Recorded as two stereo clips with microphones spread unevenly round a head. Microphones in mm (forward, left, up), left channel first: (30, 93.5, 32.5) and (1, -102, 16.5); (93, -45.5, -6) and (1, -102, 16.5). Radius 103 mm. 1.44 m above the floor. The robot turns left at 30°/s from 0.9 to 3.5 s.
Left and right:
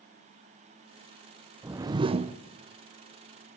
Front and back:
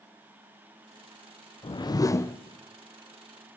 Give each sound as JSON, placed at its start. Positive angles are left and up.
{"t": 1.6, "sound": "a whoosh", "azimuth_deg": -20, "distance_m": 0.7}